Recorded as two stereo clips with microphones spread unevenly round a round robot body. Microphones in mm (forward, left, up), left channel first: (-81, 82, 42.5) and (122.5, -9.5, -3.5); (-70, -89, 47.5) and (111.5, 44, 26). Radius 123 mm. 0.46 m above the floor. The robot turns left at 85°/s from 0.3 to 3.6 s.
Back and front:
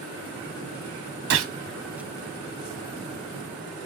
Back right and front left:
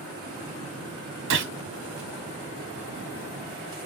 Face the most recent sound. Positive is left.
turn(degrees=165)